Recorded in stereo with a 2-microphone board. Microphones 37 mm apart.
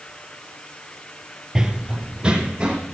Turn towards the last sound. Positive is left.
turn(degrees=-25)  # may be behind; listen again after turning